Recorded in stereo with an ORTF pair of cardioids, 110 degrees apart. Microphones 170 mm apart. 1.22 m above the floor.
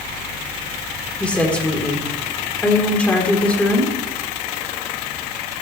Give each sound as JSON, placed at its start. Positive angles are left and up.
{"t": 1.2, "sound": "a woman speaking", "azimuth_deg": 5, "distance_m": 4.0}